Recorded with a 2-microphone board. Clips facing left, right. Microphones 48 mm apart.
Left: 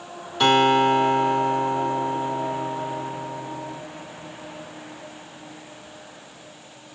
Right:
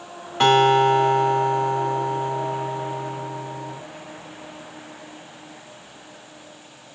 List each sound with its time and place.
0.4 s a guitar: 35° right (ahead or behind), 1.8 m